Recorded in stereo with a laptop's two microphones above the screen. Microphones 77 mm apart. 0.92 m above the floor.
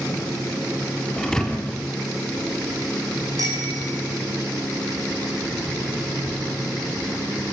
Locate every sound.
1.2 s a thud: 5° left (ahead or behind), 3 m
3.4 s a bicycle bell: 50° right (ahead or behind), 5 m